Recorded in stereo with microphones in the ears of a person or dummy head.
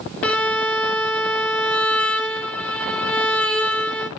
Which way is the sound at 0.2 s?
5° left (ahead or behind).